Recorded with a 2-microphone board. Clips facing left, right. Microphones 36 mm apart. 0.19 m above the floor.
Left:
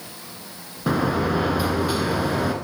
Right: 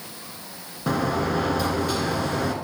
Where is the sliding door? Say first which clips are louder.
Left 2 dB; 10° left (ahead or behind), 0.8 m.